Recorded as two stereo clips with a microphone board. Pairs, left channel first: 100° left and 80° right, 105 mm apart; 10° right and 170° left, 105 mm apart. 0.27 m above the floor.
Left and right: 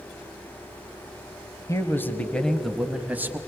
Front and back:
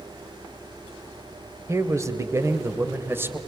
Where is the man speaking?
130° left, 1.3 m; by 3.4 s 130° right, 1.3 m.